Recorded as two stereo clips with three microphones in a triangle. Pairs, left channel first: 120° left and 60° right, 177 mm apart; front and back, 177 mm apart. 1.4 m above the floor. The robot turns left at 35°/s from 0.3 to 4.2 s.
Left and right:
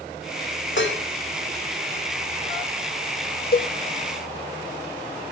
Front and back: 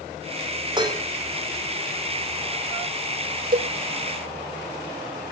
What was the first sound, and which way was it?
Dishes clattering, 115° left.